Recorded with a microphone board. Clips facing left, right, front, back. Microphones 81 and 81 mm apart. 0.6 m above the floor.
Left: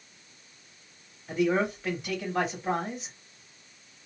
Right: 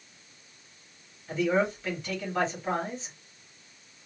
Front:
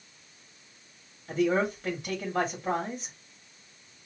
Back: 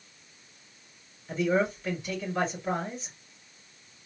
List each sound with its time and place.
1.3 s a man speaking: 10° left, 2.0 m